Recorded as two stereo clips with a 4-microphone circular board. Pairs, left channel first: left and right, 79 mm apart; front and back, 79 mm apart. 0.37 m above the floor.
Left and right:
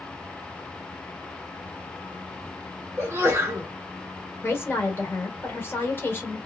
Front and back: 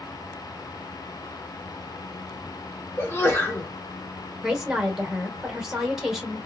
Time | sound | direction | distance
3.0 | a sneeze | 45° right | 1.1 m
4.4 | a woman speaking | 100° left | 0.9 m